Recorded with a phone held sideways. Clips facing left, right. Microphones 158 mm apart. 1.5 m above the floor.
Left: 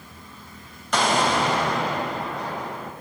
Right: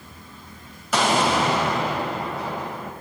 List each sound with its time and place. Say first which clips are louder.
0.9 s an explosion: right 1 dB; 5° right (ahead or behind), 4 m